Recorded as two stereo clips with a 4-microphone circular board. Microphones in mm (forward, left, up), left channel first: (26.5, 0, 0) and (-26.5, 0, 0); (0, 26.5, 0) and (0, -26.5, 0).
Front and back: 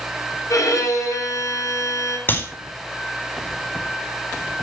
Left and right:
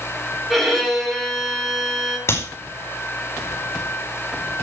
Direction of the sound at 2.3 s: 50° left.